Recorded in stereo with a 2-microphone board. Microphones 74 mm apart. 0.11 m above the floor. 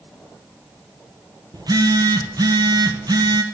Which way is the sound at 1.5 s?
65° right (ahead or behind).